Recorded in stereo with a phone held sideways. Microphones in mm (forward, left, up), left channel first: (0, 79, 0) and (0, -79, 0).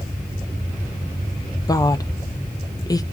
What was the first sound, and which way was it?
A woman speaking, 25° left (ahead or behind).